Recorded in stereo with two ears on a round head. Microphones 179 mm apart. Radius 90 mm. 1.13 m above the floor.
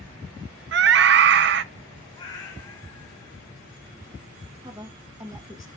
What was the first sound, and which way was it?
A scream, 55° right (ahead or behind).